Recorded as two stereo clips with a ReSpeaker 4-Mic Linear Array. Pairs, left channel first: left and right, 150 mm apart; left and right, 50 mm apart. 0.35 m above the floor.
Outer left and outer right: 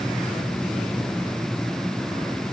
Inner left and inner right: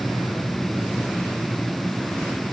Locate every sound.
Only background noise.